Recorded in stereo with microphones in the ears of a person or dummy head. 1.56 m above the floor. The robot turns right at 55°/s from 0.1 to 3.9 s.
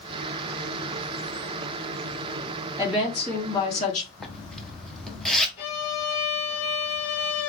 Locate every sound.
2.8 s a woman speaking: 15° right, 3 m; by 4.1 s 45° left, 3 m
4.2 s a zipper: 5° left (ahead or behind), 0.7 m
5.6 s a violin: 55° left (ahead or behind), 3 m